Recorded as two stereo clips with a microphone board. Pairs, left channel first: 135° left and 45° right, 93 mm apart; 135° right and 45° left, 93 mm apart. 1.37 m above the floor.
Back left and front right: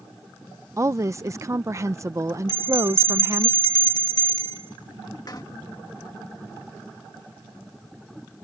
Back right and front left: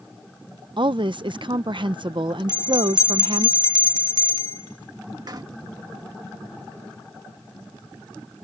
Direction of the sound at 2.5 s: 90° left.